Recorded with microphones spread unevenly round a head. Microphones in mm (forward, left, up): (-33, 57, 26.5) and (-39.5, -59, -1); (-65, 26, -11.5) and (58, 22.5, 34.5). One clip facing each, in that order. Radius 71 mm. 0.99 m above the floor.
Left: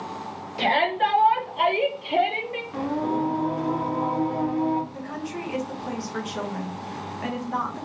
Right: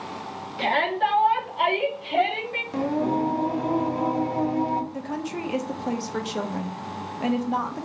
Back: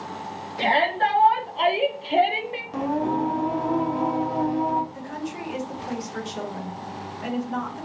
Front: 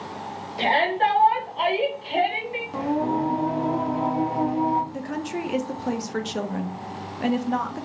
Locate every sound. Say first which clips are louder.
0.6 s a shout: left 1 dB, even; 60° left, 1.7 m; by 2.6 s 175° right, 1.4 m
2.7 s singing: right 2 dB, even; 45° right, 0.6 m
4.9 s a woman speaking: right 2 dB, front 3 dB; 40° right, 0.6 m